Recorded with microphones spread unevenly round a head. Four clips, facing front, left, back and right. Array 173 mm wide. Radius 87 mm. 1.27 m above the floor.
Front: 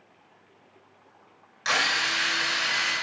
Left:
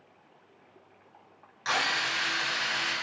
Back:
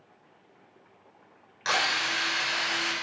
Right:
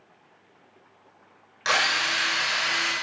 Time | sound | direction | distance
1.6 | a drill | 90° right | 6 m